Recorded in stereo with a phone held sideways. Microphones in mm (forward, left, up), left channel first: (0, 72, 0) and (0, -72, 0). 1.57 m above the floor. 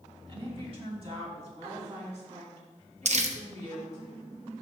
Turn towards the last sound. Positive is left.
turn(degrees=-55)  # may be behind; listen again after turning